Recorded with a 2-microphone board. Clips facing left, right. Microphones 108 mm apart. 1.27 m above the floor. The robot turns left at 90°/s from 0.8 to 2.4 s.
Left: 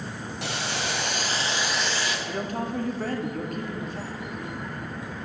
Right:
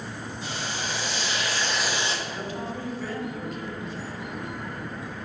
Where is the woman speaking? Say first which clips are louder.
Left 3 dB; 45° left (ahead or behind), 0.9 m; by 4.2 s 50° left (ahead or behind), 0.9 m.